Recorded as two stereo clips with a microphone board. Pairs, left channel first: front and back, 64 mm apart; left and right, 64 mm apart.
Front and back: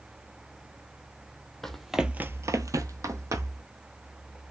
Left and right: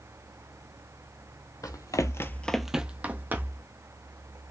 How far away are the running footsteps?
About 1.0 m.